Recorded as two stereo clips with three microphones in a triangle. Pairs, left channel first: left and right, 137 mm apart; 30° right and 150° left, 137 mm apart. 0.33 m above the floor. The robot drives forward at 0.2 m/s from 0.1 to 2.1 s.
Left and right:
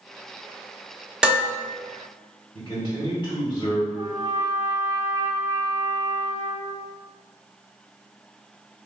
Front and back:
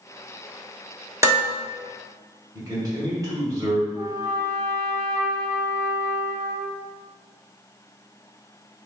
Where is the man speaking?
105° left, 1.6 m.